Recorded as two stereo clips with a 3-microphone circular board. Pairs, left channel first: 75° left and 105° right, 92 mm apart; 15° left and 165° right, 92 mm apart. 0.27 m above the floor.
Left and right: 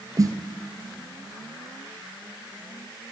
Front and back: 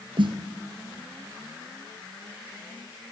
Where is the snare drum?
150° right, 1.1 m.